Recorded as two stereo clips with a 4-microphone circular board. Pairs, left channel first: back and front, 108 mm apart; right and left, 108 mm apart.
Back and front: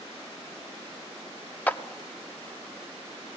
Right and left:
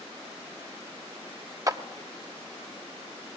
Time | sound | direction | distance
1.7 | a clap | 115° left | 0.7 m